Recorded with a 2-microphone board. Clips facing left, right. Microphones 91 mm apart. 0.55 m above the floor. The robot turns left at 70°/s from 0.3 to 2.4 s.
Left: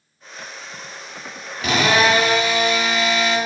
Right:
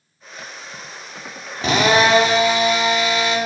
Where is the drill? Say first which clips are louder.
Right 2 dB; 80° right, 1.1 m; by 3.4 s 135° right, 1.1 m.